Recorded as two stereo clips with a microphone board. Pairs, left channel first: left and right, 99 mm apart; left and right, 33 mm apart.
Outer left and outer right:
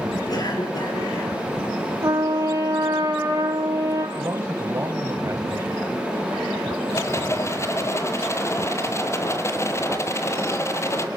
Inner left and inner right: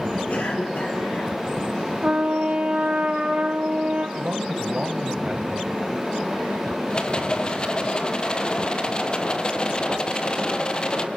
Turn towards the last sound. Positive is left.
turn(degrees=30)  # may be behind; listen again after turning